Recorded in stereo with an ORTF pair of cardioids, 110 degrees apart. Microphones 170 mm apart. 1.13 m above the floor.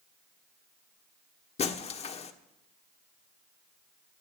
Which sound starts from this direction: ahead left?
Breaking glass, at 1.6 s.